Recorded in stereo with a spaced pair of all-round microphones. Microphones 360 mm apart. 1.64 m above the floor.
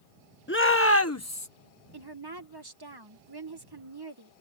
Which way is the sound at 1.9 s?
90° right.